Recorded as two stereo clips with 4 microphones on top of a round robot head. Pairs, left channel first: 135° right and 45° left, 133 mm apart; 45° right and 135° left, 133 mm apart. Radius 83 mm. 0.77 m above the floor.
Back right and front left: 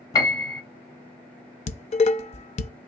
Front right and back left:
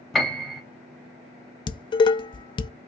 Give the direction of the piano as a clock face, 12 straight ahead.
4 o'clock.